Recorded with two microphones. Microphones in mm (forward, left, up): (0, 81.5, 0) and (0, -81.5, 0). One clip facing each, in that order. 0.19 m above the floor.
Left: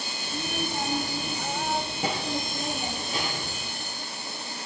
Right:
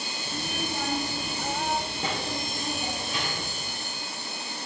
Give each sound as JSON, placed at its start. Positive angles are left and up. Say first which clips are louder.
{"t": 0.2, "sound": "a child speaking", "louder": "left 2 dB", "side_deg": -10, "distance_m": 4.0}